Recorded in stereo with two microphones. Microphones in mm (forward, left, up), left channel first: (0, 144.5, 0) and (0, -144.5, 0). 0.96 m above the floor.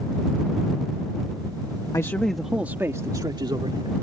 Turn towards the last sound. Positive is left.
turn(degrees=-20)  # may be behind; listen again after turning